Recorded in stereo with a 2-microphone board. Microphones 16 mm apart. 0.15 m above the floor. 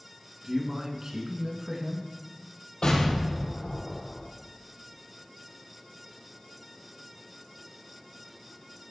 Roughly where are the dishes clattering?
I don't hear dishes clattering.